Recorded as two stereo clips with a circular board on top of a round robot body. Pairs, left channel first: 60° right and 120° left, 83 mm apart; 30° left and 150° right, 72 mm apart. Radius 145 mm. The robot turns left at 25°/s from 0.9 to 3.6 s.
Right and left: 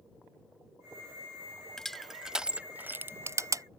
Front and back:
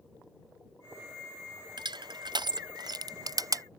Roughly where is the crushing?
Behind right.